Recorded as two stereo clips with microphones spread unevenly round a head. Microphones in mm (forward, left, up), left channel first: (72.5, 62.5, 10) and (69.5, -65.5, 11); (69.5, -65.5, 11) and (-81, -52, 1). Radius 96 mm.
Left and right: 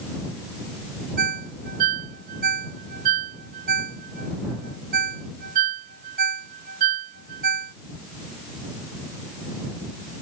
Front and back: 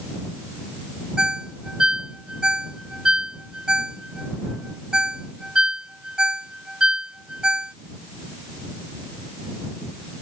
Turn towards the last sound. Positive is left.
turn(degrees=-100)